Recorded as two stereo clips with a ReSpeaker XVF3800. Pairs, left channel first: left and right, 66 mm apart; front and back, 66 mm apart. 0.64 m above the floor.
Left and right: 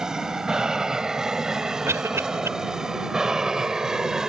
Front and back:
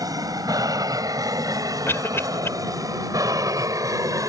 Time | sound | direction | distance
0.0 | an aircraft | 170° right | ?
1.9 | a cough | 50° right | ?